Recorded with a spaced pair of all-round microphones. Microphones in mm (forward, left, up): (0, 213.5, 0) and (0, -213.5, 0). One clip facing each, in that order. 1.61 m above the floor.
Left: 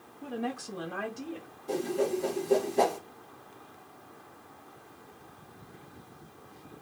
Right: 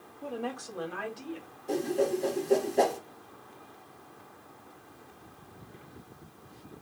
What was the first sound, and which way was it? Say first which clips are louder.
A woman speaking: left 1 dB; 25° left (ahead or behind).